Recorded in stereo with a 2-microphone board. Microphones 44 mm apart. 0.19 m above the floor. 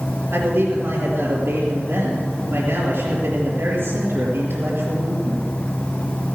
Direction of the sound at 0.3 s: 55° right (ahead or behind).